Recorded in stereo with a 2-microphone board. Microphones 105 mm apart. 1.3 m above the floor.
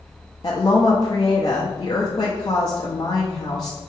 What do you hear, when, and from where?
0.4 s a woman speaking: 40° left (ahead or behind), 0.6 m